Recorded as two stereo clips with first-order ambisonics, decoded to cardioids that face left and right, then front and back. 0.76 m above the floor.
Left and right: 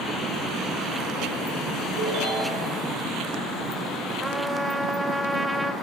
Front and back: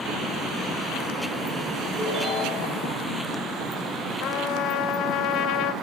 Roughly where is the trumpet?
Ahead.